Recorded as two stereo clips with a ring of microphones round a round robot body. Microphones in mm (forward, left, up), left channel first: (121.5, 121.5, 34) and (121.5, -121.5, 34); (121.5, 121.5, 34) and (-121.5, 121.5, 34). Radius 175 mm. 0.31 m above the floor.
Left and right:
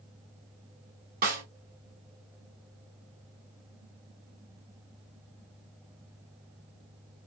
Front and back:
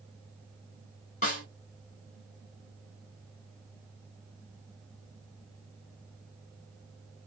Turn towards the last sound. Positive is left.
turn(degrees=-55)